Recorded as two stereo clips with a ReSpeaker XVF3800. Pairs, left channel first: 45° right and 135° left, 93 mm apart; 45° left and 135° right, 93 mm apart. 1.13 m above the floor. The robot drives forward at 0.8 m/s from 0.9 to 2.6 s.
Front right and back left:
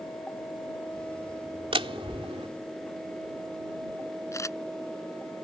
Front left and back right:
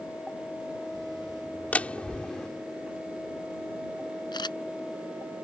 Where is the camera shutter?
10° left.